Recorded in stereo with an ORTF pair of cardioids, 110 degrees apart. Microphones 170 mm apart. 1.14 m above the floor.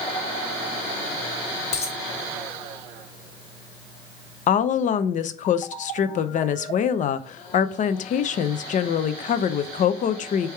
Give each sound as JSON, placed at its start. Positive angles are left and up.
{"t": 1.7, "sound": "a dropped coin", "azimuth_deg": 40, "distance_m": 1.5}
{"t": 4.5, "sound": "a woman speaking", "azimuth_deg": 50, "distance_m": 0.5}